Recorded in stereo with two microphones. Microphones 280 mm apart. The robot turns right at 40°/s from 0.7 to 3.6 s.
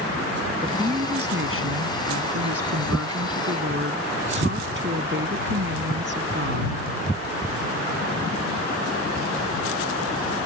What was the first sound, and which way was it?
A woman speaking, 160° right.